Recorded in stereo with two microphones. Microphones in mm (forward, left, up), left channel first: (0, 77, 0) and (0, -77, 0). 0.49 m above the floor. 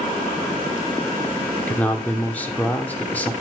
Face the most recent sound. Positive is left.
turn(degrees=10)  # may be behind; listen again after turning